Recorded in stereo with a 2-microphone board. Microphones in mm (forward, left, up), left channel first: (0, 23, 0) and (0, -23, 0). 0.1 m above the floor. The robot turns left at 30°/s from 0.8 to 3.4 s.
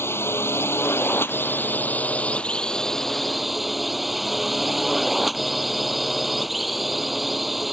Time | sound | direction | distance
0.0 | a drone | 80° left | ?